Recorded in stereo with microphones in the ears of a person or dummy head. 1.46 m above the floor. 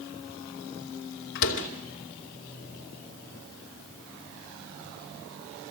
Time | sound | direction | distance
1.4 | a door slam | 75° left (ahead or behind) | 2.5 m